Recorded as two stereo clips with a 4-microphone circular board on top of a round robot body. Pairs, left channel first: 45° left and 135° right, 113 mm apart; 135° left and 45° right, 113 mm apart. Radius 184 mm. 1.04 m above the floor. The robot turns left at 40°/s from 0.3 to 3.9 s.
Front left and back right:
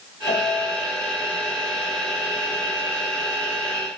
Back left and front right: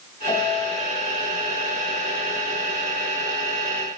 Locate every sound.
0.3 s a piano: 80° left, 3 m; by 0.9 s 55° left, 3 m